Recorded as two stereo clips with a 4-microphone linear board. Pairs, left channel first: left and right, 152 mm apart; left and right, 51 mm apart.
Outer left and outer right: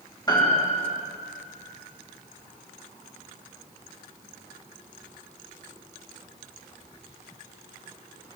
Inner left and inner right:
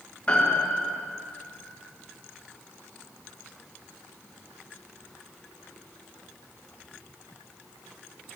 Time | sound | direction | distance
0.3 | a piano | 25° left (ahead or behind) | 2.5 m